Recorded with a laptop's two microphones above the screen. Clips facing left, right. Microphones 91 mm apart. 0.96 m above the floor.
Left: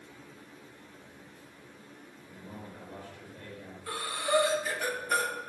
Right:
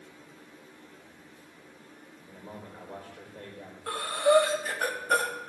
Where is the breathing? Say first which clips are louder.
Right 7 dB; 50° right (ahead or behind), 1.1 m.